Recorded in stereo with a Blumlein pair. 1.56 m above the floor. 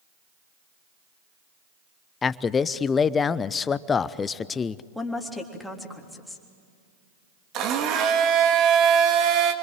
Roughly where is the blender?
Ahead right.